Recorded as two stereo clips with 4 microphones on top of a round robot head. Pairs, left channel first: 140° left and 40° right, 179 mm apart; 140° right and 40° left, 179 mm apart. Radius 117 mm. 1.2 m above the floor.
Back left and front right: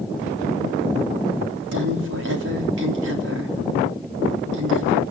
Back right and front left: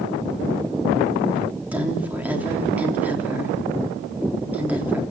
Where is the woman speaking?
45° right, 3.5 m.